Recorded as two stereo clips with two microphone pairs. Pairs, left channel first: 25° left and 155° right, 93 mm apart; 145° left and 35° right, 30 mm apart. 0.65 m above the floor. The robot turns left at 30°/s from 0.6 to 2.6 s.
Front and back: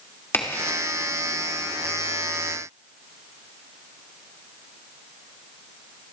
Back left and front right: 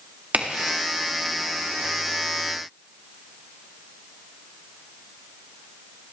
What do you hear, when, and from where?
0.3 s a crack: 35° right, 2 m; by 0.8 s 40° right, 2 m